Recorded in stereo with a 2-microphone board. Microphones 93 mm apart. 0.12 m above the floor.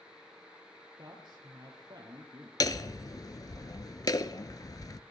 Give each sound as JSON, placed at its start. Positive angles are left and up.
{"t": 1.0, "sound": "a man speaking", "side_deg": -55, "distance_m": 3.0}
{"t": 2.6, "sound": "hammering", "side_deg": 50, "distance_m": 0.6}